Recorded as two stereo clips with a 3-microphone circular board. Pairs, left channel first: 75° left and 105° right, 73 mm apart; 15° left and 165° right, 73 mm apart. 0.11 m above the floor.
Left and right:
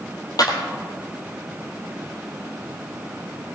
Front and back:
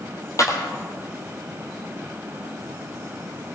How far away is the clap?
About 3 m.